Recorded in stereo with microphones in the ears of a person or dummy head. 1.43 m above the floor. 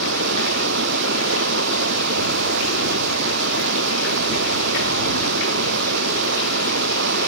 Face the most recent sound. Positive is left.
turn(degrees=-70)  # may be behind; listen again after turning